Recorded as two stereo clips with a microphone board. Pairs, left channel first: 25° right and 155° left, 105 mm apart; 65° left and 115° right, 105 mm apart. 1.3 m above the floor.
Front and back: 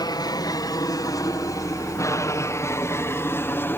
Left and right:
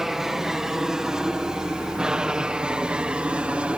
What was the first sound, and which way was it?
An aircraft, 30° right.